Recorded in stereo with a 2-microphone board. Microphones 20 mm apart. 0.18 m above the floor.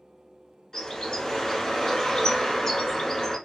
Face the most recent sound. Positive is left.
turn(degrees=30)  # may be behind; listen again after turning